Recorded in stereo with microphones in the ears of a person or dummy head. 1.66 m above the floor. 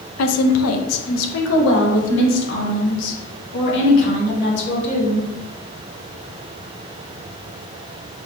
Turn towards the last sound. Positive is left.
turn(degrees=65)  # may be behind; listen again after turning